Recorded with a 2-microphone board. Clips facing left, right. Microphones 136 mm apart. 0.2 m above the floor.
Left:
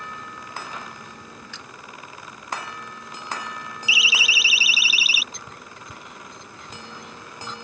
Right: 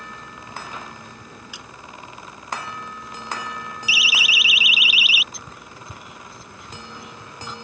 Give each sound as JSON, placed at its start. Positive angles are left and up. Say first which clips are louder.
{"t": 1.5, "sound": "a splash", "louder": "right 1 dB", "side_deg": -10}
{"t": 3.9, "sound": "a siren", "louder": "even", "side_deg": 25}
{"t": 5.3, "sound": "whispering", "louder": "right 1 dB", "side_deg": -5}